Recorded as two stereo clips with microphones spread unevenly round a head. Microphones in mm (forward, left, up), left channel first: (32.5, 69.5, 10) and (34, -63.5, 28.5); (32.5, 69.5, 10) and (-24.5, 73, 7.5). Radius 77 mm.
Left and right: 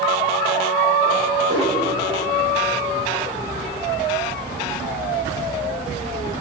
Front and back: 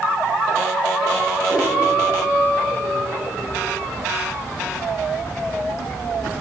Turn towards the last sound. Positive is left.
turn(degrees=-135)